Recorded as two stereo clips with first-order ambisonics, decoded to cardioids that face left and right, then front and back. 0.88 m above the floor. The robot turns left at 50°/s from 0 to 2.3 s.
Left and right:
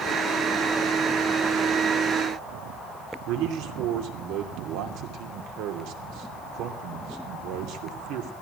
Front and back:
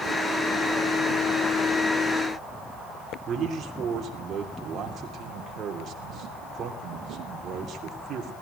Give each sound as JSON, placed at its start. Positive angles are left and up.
{"t": 3.3, "sound": "a man speaking", "azimuth_deg": -120, "distance_m": 3.0}